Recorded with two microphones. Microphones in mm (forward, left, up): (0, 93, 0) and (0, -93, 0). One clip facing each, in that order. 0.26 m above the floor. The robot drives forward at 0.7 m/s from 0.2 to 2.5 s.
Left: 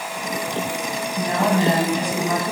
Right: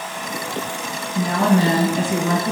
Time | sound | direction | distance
1.1 | a woman speaking | 55° right (ahead or behind) | 3.5 m